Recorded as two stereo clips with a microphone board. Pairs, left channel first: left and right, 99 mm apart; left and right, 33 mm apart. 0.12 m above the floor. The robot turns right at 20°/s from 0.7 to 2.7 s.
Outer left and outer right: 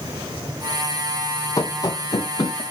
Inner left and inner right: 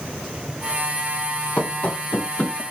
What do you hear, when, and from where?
1.6 s running footsteps: 35° left (ahead or behind), 1.0 m; by 2.6 s 45° left (ahead or behind), 1.5 m